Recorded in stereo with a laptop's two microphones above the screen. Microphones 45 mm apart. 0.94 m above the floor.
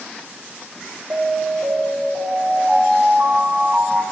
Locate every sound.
1.1 s an alarm: 55° right (ahead or behind), 7 m